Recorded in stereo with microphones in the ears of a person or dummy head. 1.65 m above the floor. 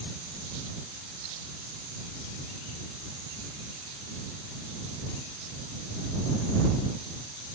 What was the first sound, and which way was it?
Only background noise.